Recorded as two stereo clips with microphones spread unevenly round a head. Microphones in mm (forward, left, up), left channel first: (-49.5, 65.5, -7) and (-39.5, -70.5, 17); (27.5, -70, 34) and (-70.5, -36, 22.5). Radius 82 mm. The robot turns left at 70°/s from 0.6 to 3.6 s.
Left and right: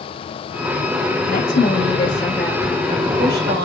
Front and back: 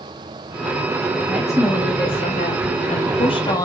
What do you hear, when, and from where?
1.3 s a woman speaking: 90° left, 0.9 m; by 3.7 s 75° right, 0.9 m